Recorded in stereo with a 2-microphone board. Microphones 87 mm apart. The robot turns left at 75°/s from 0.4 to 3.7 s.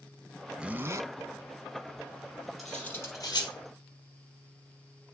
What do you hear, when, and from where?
0.6 s a zipper: 10° right, 0.6 m; by 1.1 s 50° right, 0.6 m
2.6 s cutlery clinking: centre (ahead or behind), 3 m; by 3.5 s 65° left (ahead or behind), 3 m